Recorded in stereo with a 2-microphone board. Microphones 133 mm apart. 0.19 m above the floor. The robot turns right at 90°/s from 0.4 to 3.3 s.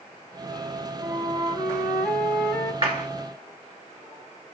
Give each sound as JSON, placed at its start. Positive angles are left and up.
{"t": 1.0, "sound": "a flute", "side_deg": -20, "distance_m": 1.4}
{"t": 2.8, "sound": "a clap", "side_deg": -40, "distance_m": 1.5}